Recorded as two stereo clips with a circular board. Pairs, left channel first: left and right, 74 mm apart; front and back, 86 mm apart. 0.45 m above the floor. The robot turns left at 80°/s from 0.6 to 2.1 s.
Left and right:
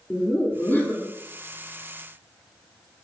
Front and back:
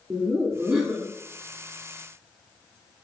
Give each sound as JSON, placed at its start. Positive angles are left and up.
{"t": 0.1, "sound": "laughter", "azimuth_deg": 125, "distance_m": 0.8}